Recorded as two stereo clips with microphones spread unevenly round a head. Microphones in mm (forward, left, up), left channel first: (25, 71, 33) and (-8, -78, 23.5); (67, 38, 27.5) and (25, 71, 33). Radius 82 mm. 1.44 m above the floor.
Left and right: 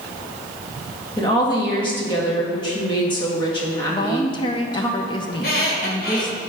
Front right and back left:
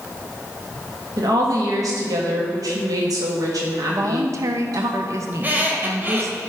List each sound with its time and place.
1.2 s a woman speaking: 140° left, 1.9 m
3.9 s a woman speaking: 135° left, 0.6 m
5.3 s a squeak: 100° left, 1.9 m